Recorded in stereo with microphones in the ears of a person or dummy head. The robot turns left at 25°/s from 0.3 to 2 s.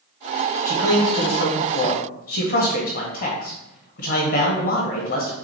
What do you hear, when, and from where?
0.7 s a man speaking: 160° left, 1.3 m; by 5.3 s 125° left, 1.3 m